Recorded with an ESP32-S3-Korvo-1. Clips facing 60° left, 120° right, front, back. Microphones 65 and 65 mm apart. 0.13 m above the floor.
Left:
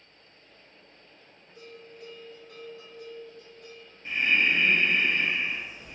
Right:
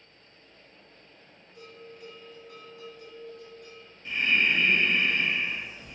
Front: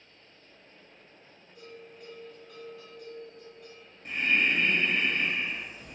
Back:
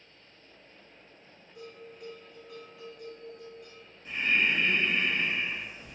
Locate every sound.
1.6 s a bell: 100° left, 1.6 m
4.0 s breathing: 5° left, 0.7 m